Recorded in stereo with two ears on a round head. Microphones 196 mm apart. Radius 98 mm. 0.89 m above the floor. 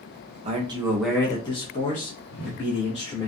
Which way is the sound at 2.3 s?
75° left (ahead or behind).